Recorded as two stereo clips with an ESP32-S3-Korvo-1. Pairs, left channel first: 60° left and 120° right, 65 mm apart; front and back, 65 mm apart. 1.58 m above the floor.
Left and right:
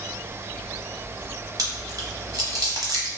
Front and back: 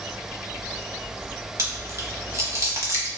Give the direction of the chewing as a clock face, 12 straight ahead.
5 o'clock.